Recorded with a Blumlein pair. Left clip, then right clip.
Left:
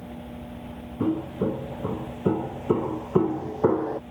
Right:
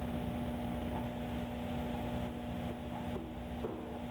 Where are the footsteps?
45° left; by 4.0 s 50° left.